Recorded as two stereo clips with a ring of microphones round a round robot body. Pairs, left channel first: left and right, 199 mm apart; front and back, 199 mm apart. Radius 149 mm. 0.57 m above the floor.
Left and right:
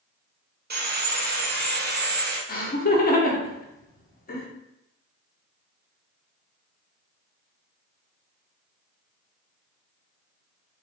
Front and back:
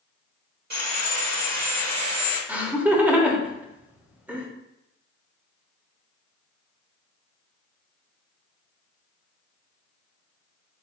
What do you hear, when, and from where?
0.7 s sawing: 130° right, 1.3 m
2.5 s laughter: 100° left, 1.1 m